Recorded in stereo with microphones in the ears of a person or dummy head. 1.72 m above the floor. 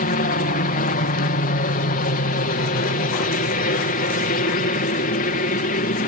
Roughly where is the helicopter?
Left.